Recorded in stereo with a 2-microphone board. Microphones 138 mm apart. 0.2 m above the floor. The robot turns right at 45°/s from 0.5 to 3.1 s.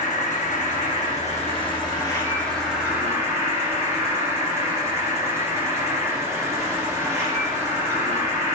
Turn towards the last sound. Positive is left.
turn(degrees=-160)